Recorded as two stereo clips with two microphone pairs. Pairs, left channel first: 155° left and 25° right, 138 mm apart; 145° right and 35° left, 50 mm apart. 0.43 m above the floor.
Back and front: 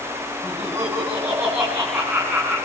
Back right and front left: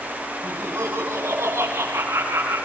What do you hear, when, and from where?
0.4 s laughter: 40° left, 3.5 m; by 2.6 s 55° left, 5 m